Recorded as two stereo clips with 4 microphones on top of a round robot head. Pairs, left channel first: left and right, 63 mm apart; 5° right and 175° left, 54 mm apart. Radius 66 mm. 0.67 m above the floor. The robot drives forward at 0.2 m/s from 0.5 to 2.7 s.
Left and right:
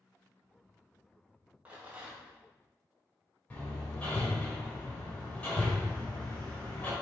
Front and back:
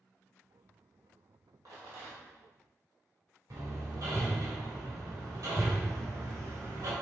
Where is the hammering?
155° left, 2.5 m.